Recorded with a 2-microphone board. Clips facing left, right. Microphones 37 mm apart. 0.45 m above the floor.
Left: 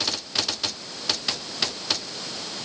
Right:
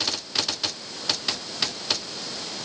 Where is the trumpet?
I don't hear a trumpet.